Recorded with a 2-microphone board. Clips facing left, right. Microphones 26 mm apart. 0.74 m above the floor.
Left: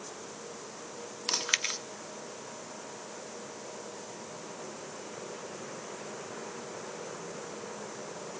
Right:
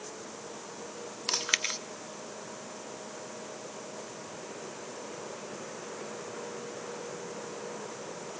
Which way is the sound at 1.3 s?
5° right (ahead or behind).